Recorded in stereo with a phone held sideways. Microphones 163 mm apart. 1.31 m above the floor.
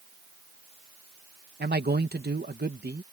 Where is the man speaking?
80° right.